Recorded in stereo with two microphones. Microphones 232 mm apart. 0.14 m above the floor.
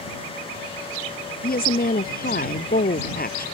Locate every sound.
1.4 s a woman speaking: 40° left (ahead or behind)